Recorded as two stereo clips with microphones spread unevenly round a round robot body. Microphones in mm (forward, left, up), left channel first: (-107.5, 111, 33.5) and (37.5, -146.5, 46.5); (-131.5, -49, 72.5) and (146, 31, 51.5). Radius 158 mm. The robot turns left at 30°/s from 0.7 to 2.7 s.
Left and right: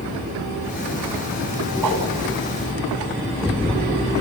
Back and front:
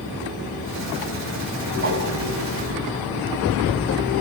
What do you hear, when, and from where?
1.8 s a whoosh: 30° right, 5 m; by 2.1 s 35° right, 5 m